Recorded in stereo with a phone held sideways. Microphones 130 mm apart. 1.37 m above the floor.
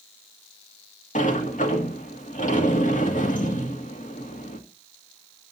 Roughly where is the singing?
No singing in this recording.